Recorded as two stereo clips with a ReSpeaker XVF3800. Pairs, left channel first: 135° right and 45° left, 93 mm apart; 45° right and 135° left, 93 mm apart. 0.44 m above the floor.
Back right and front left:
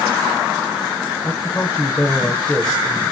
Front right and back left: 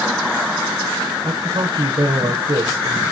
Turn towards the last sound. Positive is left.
turn(degrees=150)